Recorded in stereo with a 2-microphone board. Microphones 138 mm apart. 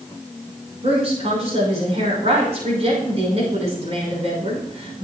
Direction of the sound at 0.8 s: 50° right (ahead or behind).